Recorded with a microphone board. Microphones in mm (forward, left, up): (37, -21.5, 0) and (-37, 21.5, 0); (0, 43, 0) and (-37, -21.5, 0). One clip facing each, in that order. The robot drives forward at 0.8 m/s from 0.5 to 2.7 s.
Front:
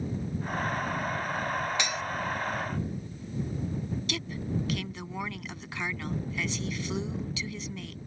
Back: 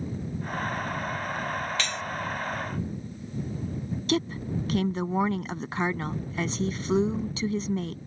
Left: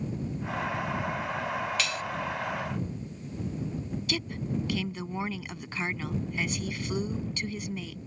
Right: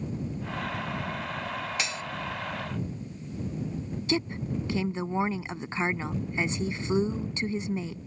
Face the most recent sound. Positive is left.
turn(degrees=-175)